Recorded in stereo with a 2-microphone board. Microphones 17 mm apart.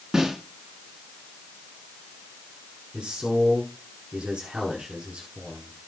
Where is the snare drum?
40° right (ahead or behind), 8 m.